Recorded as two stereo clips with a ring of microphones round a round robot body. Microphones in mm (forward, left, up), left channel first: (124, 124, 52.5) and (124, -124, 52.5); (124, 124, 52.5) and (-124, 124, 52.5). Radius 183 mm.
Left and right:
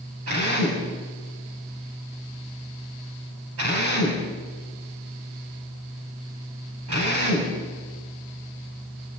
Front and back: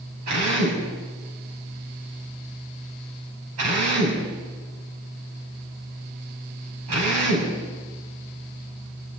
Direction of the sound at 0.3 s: 140° right.